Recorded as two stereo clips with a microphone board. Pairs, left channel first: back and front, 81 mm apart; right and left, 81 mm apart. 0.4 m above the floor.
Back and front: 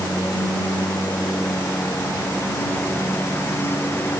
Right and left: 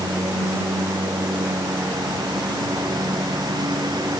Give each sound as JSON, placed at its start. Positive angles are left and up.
{"t": 0.0, "sound": "a lawn mower", "azimuth_deg": 120}